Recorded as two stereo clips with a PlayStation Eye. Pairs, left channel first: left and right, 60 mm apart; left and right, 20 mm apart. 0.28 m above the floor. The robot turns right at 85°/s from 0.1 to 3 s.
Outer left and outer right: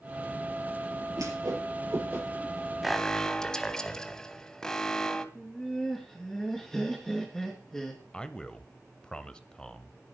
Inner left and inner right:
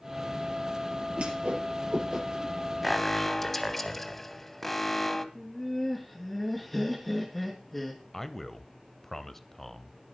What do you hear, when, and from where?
1.2 s a whoosh: 70° right (ahead or behind), 7 m; by 2.5 s 5° left (ahead or behind), 7 m
2.8 s an alarm: centre (ahead or behind), 1.0 m; by 5.2 s 10° left (ahead or behind), 1.0 m
5.3 s laughter: 5° left (ahead or behind), 3 m
8.1 s a man speaking: 15° left (ahead or behind), 1.0 m